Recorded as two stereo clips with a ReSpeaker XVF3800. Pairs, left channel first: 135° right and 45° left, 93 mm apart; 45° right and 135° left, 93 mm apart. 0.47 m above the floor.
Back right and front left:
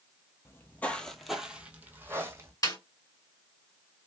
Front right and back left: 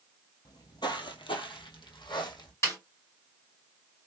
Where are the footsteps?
80° right, 0.8 m; by 2.5 s 10° right, 1.2 m.